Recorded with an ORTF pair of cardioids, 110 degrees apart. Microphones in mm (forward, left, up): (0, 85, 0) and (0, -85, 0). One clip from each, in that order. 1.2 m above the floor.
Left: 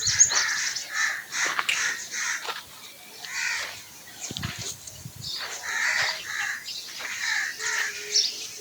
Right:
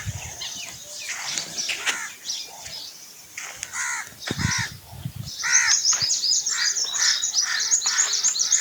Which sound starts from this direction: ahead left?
A finger snap, at 1.7 s.